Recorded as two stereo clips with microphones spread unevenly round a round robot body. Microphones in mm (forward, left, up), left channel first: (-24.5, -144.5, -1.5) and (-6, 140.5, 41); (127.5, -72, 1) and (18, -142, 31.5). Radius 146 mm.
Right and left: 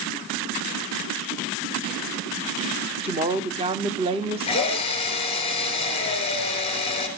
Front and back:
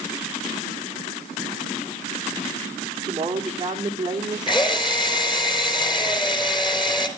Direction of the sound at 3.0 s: 155° left.